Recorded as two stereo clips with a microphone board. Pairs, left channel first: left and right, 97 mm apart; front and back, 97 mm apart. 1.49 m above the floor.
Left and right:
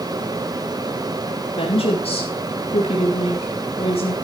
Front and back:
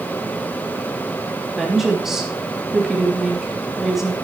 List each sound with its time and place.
1.6 s a woman speaking: 95° left, 3 m